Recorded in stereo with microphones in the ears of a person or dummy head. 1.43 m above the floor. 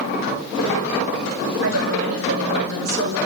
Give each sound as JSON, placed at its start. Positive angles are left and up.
{"t": 1.6, "sound": "a woman speaking", "side_deg": -85, "distance_m": 7.5}